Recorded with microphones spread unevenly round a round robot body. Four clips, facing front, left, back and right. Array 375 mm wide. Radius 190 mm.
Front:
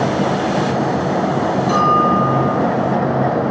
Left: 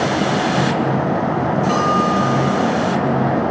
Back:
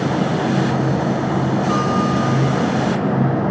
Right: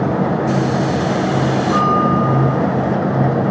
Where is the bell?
95° left, 8.5 m.